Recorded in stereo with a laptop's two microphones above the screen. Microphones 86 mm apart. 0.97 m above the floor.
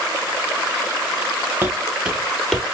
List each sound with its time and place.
1.6 s footsteps: 20° right (ahead or behind), 1.0 m; by 2.6 s 5° left (ahead or behind), 1.5 m